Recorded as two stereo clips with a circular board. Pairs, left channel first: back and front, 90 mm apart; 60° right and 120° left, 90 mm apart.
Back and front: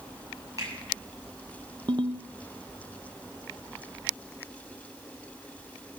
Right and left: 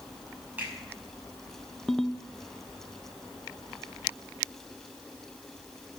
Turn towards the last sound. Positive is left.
turn(degrees=25)